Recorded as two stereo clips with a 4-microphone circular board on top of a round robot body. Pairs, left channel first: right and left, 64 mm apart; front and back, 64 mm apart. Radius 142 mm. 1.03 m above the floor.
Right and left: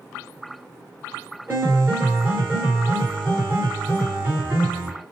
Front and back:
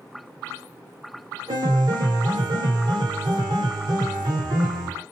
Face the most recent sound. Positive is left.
turn(degrees=155)